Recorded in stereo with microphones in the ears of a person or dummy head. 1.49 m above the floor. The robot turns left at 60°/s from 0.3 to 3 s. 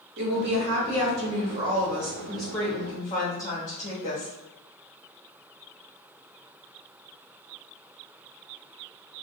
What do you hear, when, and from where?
0.2 s a woman speaking: 55° right, 1.1 m; by 4.3 s 145° left, 1.1 m